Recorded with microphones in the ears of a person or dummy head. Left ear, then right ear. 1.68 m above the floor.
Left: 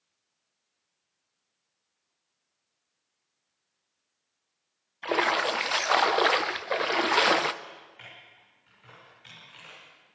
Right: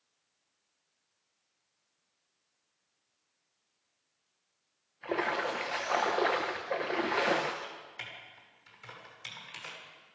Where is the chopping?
No chopping in this recording.